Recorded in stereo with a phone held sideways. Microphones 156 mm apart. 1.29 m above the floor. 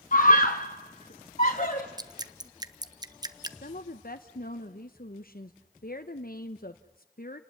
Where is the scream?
60° left (ahead or behind), 1.0 m; by 1.9 s 50° left (ahead or behind), 2 m.